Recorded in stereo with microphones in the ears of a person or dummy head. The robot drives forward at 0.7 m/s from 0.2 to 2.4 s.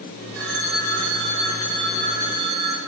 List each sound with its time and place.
0.3 s a phone ringing: 60° right (ahead or behind), 1.6 m; by 2.8 s 35° right (ahead or behind), 2.5 m